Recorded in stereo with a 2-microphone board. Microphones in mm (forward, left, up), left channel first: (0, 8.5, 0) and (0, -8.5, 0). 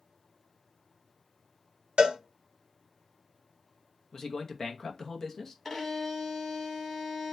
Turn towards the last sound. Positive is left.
turn(degrees=5)  # may be behind; listen again after turning